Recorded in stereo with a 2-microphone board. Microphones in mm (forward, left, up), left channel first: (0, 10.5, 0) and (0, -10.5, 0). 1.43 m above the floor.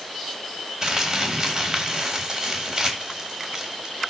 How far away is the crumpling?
About 3 m.